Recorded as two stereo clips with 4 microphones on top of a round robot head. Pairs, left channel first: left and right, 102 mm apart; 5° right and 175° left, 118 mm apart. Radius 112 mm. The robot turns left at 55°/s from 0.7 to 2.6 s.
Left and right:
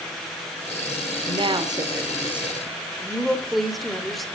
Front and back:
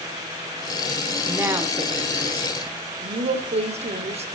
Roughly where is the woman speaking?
Right.